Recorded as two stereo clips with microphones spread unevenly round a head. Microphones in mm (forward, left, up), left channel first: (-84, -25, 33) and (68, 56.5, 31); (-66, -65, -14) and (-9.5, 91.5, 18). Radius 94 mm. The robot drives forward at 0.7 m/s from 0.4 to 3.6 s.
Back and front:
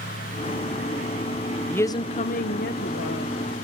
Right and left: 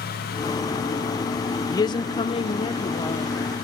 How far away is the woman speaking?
About 0.5 m.